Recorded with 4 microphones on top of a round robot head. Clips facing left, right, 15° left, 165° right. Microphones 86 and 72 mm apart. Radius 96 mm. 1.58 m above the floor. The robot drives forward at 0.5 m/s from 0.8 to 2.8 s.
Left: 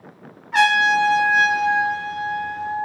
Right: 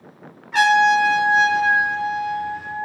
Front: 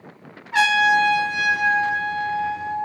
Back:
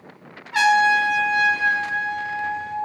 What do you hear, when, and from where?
0.5 s a trumpet: straight ahead, 1.3 m; by 2.9 s 170° left, 0.9 m